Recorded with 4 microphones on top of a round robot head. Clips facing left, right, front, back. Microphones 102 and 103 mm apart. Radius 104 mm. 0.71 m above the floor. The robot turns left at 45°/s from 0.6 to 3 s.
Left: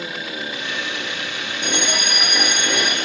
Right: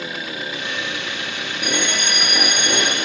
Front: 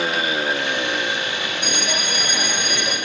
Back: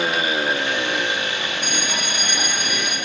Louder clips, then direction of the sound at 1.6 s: Even, front 1 dB; 30° left.